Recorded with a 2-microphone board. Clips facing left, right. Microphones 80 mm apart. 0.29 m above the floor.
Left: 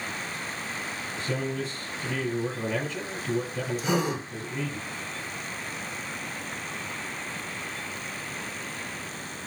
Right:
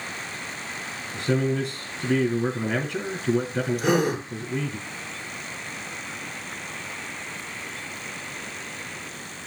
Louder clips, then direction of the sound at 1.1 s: Right 7 dB; 70° right (ahead or behind).